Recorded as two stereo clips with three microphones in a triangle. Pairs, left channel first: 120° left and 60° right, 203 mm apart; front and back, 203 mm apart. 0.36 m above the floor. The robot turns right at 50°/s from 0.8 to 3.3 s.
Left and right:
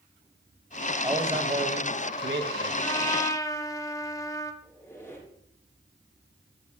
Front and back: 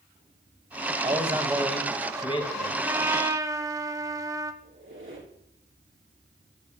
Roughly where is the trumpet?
Behind left.